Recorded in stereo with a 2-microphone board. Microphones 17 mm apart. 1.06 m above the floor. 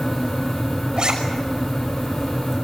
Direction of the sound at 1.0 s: 50° right (ahead or behind).